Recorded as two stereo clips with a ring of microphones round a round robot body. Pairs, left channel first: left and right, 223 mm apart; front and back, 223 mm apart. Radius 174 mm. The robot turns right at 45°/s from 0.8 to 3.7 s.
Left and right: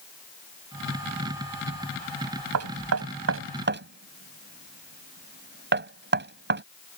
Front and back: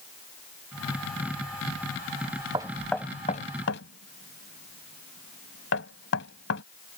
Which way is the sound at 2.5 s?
105° right.